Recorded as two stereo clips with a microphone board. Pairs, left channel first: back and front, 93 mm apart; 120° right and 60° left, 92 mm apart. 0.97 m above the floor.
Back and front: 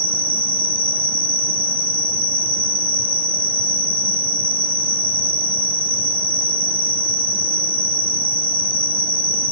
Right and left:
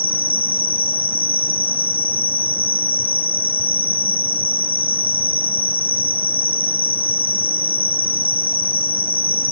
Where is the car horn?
No car horn in this recording.